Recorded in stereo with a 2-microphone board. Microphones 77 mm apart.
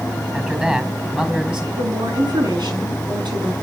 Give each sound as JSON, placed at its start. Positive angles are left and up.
{"t": 0.3, "sound": "a man speaking", "side_deg": -15, "distance_m": 4.5}
{"t": 1.8, "sound": "a woman speaking", "side_deg": -70, "distance_m": 5.5}